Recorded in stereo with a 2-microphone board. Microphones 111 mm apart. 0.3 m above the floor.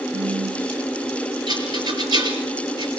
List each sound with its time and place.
0.1 s a phone buzzing: 45° right (ahead or behind), 2 m
1.5 s a rattle: 40° right (ahead or behind), 4 m